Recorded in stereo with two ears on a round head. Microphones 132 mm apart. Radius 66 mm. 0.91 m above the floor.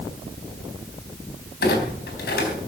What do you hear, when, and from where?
1.6 s a clunk: 70° left (ahead or behind), 4 m